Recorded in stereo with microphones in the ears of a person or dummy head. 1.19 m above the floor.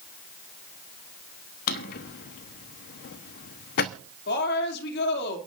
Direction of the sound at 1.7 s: 55° left (ahead or behind).